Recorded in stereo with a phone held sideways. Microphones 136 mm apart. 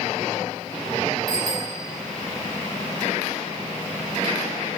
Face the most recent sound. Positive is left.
turn(degrees=-90)